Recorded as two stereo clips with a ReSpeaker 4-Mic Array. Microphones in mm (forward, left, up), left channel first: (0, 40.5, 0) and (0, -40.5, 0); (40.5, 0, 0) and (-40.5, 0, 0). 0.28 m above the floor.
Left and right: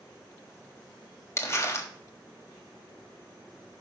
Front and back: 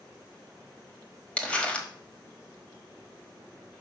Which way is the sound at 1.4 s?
65° left.